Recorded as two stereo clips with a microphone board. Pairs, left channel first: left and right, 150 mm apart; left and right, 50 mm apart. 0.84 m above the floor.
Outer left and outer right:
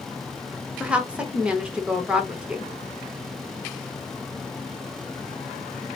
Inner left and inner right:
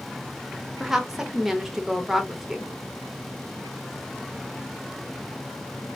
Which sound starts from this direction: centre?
A woman speaking, at 0.8 s.